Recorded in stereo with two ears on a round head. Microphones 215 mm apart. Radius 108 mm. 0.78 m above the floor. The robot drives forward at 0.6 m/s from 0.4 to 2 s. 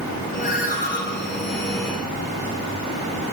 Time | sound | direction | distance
0.4 | a ringtone | 35° left (ahead or behind) | 7 m